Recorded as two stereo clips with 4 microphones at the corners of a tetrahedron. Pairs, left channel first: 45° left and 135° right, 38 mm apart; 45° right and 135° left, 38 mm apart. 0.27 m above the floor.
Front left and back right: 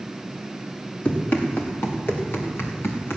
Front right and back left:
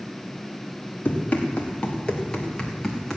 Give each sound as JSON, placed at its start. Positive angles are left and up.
{"t": 1.1, "sound": "running footsteps", "azimuth_deg": 5, "distance_m": 3.0}